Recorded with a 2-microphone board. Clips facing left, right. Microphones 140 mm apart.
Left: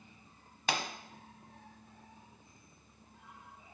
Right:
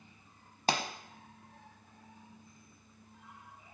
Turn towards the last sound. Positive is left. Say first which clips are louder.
# right 3 dB
turn(degrees=-35)  # may be behind; listen again after turning